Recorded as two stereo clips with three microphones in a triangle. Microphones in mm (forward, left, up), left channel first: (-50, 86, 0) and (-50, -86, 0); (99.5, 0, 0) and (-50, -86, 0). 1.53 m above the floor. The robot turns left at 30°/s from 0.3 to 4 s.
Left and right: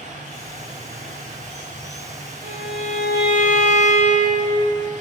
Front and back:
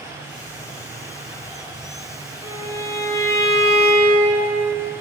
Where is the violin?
75° right, 4 m; by 4.6 s 120° right, 4 m.